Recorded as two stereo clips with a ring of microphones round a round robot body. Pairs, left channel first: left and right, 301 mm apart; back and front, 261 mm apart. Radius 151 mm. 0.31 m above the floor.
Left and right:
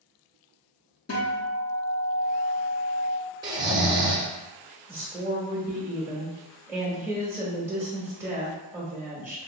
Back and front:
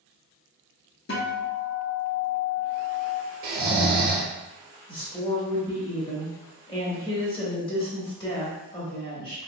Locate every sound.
1.1 s a guitar: 140° left, 1.0 m
3.4 s snoring: 20° right, 0.7 m
4.9 s a woman speaking: 155° right, 0.9 m